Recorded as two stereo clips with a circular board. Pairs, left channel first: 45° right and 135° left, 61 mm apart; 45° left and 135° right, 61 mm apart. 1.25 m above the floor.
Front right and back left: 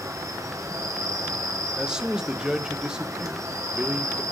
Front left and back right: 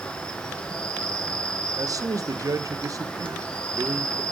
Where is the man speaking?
150° right, 0.7 m.